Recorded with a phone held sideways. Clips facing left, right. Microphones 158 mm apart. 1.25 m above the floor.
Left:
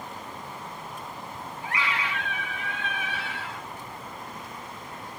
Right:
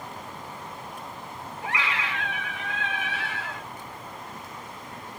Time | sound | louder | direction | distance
1.6 | a scream | even | 85° right | 3 m